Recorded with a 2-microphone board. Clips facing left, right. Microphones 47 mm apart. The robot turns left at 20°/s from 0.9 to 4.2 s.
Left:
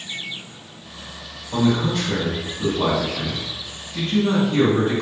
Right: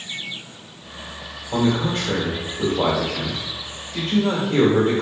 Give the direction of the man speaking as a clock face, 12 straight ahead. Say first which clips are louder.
Left 1 dB; 1 o'clock.